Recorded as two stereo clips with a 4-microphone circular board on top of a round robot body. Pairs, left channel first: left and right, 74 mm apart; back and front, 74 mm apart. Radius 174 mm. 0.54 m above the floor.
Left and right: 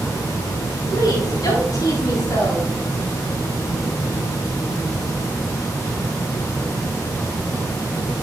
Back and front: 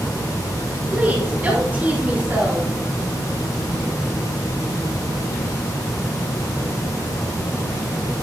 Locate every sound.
0.9 s a woman speaking: 65° left, 5.5 m